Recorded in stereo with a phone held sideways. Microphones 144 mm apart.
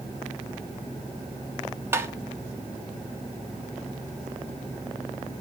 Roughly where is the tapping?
Centre.